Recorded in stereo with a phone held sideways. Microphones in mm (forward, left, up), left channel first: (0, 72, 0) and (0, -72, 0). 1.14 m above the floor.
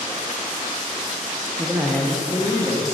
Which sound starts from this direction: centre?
A man speaking, at 1.6 s.